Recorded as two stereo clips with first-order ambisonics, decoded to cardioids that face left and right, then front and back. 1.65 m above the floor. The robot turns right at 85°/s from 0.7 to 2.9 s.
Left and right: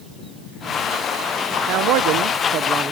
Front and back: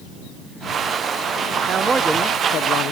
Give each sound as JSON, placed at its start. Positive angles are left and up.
{"t": 1.7, "sound": "a man speaking", "azimuth_deg": -125}